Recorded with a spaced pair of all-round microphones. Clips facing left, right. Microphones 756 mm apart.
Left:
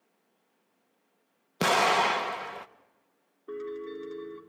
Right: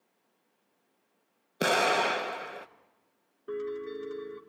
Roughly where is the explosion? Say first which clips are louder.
Even; left.